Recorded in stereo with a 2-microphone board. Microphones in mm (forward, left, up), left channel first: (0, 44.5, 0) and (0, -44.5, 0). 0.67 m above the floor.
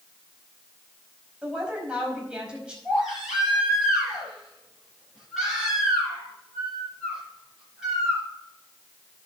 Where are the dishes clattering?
No dishes clattering in this recording.